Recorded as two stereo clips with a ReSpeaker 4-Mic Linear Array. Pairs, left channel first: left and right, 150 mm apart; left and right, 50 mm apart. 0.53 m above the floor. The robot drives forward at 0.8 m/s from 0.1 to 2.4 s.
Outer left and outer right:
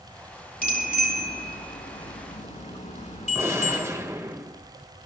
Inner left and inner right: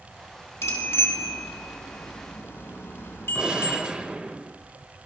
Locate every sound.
0.6 s a bicycle bell: 70° left (ahead or behind), 4 m; by 3.8 s 55° left (ahead or behind), 4.5 m
3.4 s a gunshot: 20° right (ahead or behind), 1.7 m